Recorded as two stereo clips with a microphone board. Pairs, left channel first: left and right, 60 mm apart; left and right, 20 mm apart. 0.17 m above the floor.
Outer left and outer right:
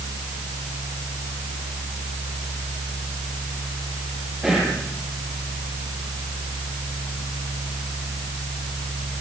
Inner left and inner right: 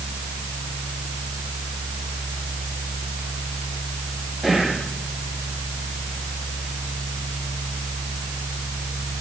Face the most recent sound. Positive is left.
turn(degrees=-10)  # may be behind; listen again after turning